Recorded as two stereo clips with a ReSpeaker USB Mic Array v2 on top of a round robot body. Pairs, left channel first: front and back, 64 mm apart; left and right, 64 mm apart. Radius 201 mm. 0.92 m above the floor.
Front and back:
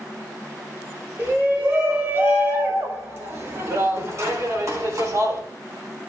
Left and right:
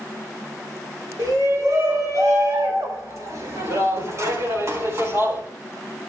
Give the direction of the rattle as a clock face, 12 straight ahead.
I don't hear a rattle.